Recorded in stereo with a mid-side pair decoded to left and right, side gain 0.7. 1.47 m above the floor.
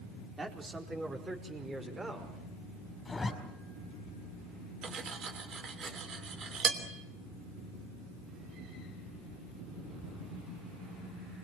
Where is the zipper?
20° left, 4.5 m.